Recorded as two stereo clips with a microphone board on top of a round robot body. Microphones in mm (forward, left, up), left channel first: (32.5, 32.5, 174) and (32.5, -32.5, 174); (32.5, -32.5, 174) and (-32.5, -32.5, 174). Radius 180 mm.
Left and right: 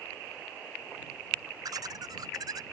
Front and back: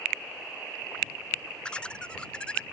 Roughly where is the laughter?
Right.